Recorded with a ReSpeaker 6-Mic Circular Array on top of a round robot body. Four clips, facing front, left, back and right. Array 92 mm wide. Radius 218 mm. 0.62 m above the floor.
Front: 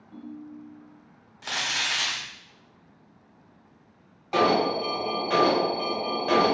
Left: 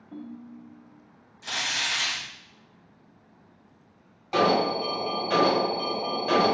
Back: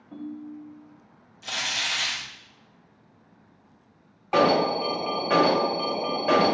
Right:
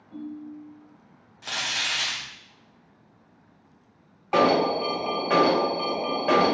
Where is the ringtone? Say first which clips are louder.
Right 4 dB, back 4 dB; 150° left, 1.3 m.